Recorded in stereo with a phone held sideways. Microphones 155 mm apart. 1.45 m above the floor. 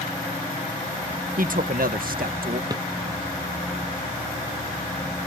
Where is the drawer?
25° right (ahead or behind).